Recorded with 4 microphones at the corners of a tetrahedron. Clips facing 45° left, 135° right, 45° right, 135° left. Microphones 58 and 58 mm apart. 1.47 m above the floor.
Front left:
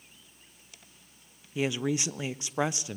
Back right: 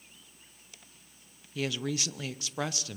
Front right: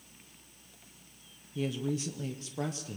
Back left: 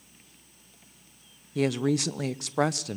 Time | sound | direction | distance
1.6 | a woman speaking | 115° left | 0.5 m